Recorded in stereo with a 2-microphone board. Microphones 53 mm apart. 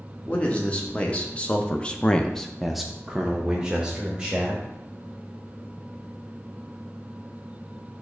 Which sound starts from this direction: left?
A man speaking, at 0.3 s.